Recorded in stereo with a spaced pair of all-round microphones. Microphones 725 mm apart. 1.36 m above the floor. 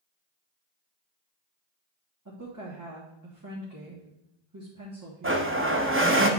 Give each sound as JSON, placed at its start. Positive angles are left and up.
{"t": 2.2, "sound": "a woman speaking", "side_deg": -25, "distance_m": 1.5}
{"t": 5.2, "sound": "a blender", "side_deg": -20, "distance_m": 0.7}